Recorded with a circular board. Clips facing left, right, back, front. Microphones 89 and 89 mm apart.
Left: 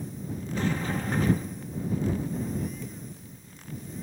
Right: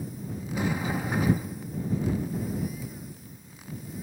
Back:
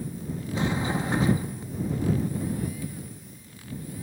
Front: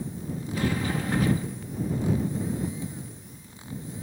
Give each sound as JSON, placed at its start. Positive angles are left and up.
{"t": 0.5, "sound": "a sliding door", "azimuth_deg": -155}